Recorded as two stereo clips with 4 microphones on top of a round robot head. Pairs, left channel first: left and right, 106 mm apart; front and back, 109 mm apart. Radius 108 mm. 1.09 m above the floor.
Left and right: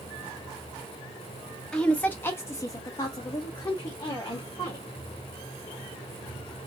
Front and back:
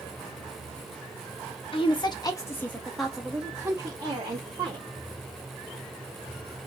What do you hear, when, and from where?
1.7 s a woman speaking: 10° left, 0.8 m; by 4.9 s 140° left, 1.3 m